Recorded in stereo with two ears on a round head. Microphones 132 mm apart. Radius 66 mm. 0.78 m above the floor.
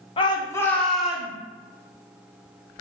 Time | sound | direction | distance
0.2 | a shout | 35° left (ahead or behind) | 0.7 m